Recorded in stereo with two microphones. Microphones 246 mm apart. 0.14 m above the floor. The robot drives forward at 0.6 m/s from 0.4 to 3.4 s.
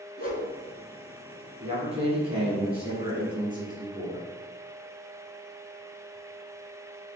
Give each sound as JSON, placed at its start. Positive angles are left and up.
{"t": 0.2, "sound": "a whoosh", "side_deg": 35, "distance_m": 1.1}
{"t": 1.6, "sound": "a man speaking", "side_deg": -25, "distance_m": 1.6}